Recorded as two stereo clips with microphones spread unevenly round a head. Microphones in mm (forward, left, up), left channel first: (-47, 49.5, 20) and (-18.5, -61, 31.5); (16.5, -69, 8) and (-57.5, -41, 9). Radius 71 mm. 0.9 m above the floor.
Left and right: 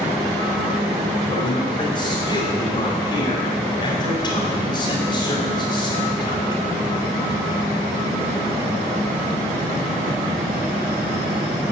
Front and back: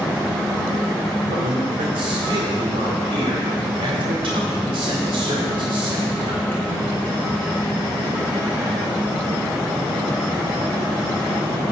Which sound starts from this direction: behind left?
A man speaking, at 1.3 s.